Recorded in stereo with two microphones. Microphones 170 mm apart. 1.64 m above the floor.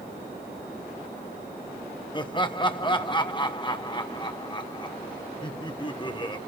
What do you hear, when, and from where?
2.1 s laughter: 30° left (ahead or behind), 1.2 m